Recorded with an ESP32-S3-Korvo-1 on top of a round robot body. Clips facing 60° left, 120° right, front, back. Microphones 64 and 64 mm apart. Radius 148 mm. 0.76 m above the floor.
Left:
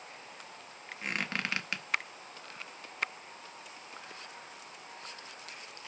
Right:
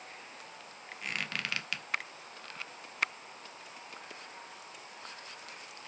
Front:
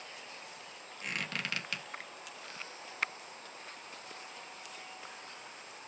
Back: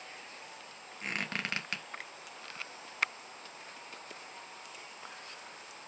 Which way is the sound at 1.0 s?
125° left.